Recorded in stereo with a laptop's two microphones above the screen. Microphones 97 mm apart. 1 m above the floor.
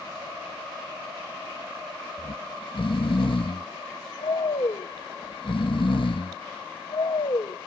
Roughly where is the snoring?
Left.